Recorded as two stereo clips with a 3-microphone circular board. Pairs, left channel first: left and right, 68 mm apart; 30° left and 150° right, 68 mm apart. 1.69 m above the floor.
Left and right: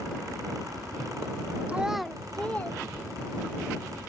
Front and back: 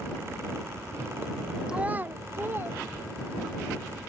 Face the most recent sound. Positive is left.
turn(degrees=155)